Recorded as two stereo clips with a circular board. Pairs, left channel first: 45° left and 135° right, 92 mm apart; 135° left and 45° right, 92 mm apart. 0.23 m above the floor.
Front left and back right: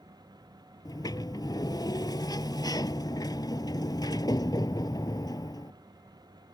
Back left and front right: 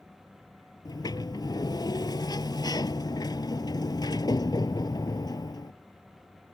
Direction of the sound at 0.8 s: 90° left.